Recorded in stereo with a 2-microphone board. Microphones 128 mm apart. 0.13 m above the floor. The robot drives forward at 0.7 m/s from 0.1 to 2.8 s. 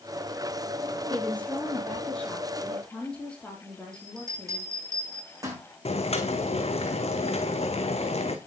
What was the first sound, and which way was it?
A woman speaking, 10° left (ahead or behind).